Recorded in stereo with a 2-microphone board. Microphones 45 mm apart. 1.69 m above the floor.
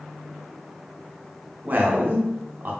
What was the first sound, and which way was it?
A man speaking, 40° right (ahead or behind).